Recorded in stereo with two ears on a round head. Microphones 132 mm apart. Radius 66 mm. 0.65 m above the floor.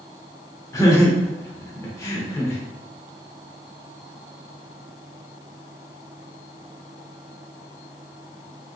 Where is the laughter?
20° left (ahead or behind), 0.9 m.